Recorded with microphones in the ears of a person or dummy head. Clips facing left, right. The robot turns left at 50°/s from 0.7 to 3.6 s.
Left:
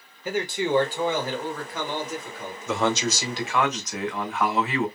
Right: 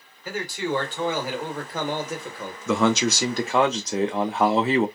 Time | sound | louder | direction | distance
0.2 | a man speaking | left 3 dB | 15° left | 1.0 m
2.7 | a man speaking | right 4 dB | 110° right | 0.5 m